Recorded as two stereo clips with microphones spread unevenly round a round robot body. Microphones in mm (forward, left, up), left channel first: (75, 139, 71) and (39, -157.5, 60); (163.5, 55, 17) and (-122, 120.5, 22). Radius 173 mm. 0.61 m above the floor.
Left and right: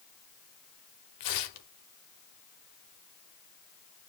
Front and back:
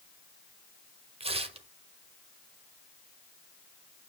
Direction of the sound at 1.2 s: 95° left.